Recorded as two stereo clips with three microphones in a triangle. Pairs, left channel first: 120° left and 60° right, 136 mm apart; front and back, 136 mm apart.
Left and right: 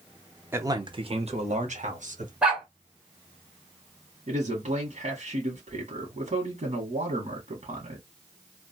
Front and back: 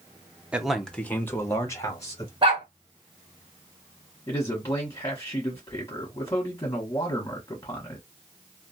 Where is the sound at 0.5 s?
110° right, 0.6 m; by 2.3 s 60° right, 1.4 m.